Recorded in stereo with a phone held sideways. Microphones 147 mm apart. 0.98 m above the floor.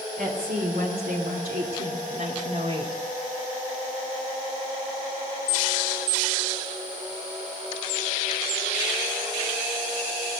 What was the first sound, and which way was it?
A woman speaking, 75° right (ahead or behind).